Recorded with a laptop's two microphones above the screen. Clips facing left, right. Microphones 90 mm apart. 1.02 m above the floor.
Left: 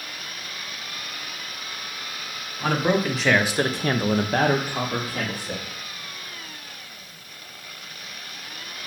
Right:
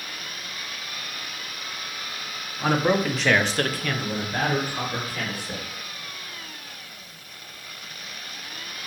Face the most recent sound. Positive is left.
turn(degrees=35)  # may be behind; listen again after turning